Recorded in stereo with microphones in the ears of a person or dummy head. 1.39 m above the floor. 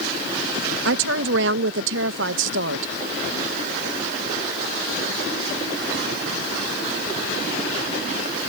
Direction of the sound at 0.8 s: 75° right (ahead or behind).